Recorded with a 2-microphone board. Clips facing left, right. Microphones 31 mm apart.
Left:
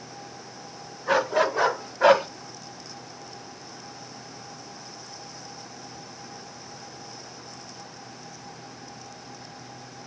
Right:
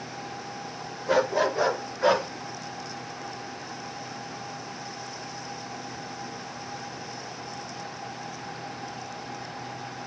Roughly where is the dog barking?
Left.